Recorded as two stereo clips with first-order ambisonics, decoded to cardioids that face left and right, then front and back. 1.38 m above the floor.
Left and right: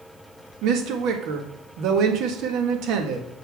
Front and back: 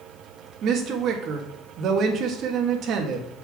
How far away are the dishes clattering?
No dishes clattering in this recording.